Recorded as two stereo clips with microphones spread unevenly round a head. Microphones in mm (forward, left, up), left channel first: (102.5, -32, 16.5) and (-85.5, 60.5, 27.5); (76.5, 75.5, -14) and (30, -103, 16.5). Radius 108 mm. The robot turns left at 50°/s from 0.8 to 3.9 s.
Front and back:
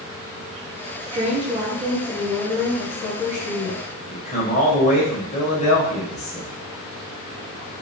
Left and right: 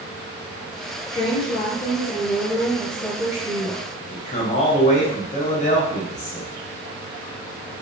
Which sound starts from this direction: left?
A woman speaking, at 1.1 s.